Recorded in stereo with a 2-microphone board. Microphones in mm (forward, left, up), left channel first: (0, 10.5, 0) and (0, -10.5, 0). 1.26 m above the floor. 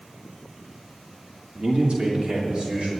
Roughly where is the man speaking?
Right.